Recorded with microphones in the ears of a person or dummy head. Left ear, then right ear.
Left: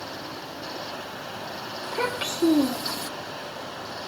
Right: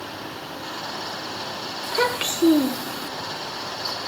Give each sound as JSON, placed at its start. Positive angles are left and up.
{"t": 1.8, "sound": "a child speaking", "side_deg": -20, "distance_m": 2.5}